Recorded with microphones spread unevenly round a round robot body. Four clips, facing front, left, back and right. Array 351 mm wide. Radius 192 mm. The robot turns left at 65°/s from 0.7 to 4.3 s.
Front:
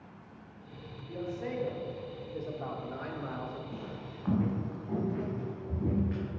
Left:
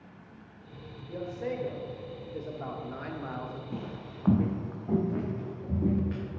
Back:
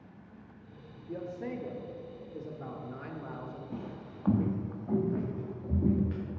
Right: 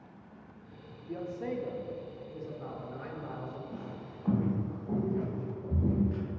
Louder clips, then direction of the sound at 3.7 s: Left 3 dB, even; 120° left.